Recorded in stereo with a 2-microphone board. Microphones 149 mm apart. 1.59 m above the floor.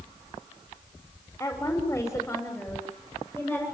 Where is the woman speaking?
15° left (ahead or behind), 6.5 m; by 3.6 s 5° left (ahead or behind), 8 m.